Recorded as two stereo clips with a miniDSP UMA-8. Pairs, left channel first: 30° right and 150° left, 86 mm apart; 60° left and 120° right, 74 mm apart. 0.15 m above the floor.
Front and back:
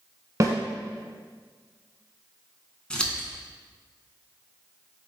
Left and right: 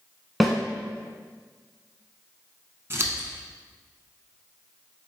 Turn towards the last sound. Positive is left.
turn(degrees=-100)